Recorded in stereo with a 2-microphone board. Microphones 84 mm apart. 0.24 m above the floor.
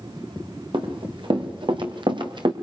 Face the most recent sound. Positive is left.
turn(degrees=-70)  # may be behind; listen again after turning